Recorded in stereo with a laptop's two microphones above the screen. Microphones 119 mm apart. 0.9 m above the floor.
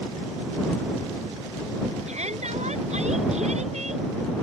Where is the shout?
75° right (ahead or behind).